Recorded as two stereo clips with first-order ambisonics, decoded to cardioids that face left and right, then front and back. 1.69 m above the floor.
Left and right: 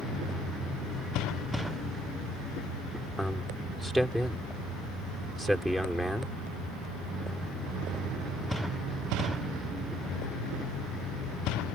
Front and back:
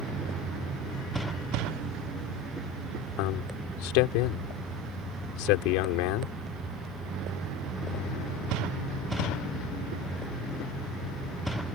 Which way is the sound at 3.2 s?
Straight ahead.